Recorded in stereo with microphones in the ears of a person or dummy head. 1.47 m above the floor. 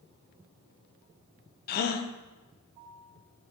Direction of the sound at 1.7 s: 50° left (ahead or behind).